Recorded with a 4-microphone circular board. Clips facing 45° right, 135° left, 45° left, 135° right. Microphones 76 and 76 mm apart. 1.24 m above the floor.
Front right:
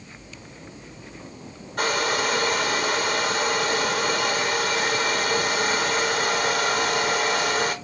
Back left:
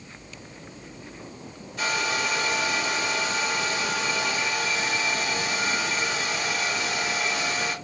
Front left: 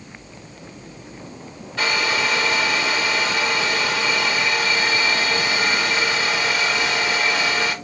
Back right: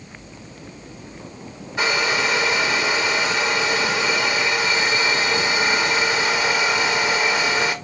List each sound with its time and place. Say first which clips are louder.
1.8 s a hair dryer: front right 4 dB, back right 1 dB; 65° right, 0.8 m